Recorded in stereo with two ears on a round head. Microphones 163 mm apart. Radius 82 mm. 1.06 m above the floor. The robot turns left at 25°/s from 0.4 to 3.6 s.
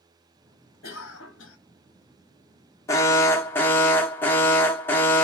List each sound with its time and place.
0.8 s a cough: 75° left (ahead or behind), 0.8 m; by 1.6 s 85° left, 0.8 m
2.9 s an alarm: 20° left (ahead or behind), 0.7 m; by 5.2 s 10° left (ahead or behind), 0.7 m